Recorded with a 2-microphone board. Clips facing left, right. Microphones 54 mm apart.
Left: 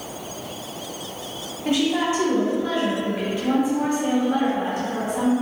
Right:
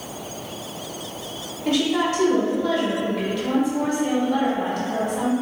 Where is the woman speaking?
20° left (ahead or behind), 1.3 m.